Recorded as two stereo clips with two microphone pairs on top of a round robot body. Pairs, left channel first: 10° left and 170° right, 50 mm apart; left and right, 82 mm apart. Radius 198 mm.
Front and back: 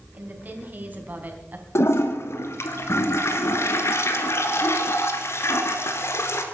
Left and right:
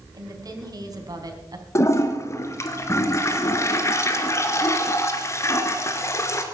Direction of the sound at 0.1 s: 120° right.